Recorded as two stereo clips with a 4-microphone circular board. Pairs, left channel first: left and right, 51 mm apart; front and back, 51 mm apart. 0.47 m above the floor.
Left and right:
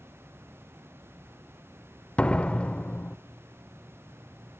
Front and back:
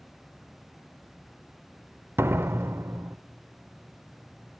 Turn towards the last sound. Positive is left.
turn(degrees=155)